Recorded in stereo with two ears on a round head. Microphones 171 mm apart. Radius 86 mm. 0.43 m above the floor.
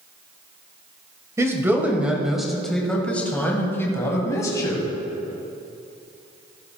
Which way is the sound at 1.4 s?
15° right (ahead or behind).